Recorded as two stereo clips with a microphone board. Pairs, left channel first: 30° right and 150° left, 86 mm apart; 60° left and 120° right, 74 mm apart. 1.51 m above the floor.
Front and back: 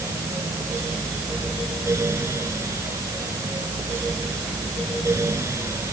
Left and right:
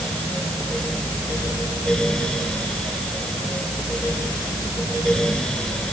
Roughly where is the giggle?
I don't hear a giggle.